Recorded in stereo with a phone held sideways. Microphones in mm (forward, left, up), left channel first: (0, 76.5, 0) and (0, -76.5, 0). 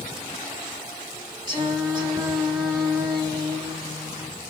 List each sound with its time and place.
1.5 s singing: 30° right (ahead or behind), 1.4 m